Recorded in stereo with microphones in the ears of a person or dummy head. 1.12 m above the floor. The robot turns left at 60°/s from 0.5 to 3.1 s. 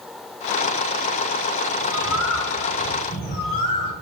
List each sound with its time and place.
1.8 s a bird: 120° left, 3 m; by 3.9 s 40° left, 3 m